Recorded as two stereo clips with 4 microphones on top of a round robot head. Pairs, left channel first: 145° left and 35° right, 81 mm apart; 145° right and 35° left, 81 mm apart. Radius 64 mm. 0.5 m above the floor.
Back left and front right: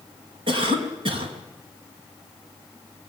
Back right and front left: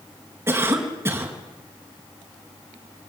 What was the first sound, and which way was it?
A cough, 25° right.